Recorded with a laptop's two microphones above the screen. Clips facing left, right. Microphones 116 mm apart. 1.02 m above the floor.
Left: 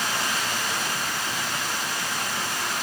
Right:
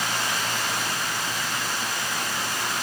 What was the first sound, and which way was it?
Only background noise.